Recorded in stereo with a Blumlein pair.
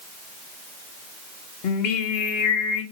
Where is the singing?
45° left, 0.8 m.